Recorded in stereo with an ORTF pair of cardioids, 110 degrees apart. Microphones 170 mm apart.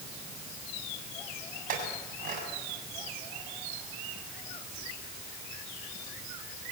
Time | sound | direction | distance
1.7 | a clink | 55° right | 6.5 m